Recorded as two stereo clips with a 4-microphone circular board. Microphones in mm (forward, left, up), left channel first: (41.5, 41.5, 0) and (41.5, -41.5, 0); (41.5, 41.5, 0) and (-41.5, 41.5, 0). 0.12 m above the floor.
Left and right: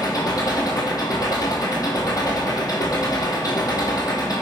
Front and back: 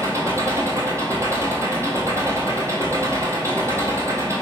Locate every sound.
0.0 s an engine running: 125° left, 0.9 m